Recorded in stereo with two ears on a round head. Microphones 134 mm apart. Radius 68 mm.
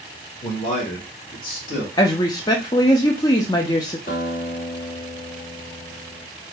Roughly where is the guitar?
Left.